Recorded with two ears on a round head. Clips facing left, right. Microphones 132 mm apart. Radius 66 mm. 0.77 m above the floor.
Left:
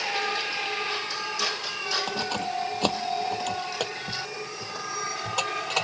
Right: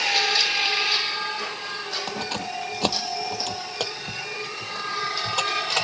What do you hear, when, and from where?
2.1 s keys jangling: 5° right (ahead or behind); by 5.8 s 5° left (ahead or behind)